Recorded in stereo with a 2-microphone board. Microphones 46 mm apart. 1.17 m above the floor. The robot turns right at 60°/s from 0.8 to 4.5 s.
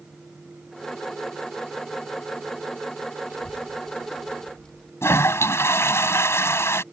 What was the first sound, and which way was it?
A child speaking, 55° right.